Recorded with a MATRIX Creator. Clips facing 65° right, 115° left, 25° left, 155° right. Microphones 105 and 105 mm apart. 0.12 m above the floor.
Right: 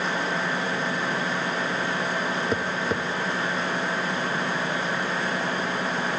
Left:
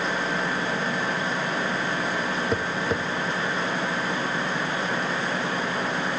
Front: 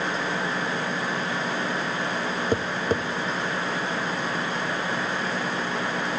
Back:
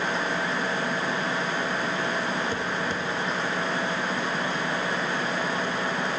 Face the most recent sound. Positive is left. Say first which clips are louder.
# even, front 4 dB
turn(degrees=20)